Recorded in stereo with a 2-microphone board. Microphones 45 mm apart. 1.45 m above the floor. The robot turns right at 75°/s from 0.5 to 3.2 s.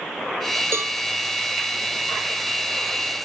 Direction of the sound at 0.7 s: 65° right (ahead or behind).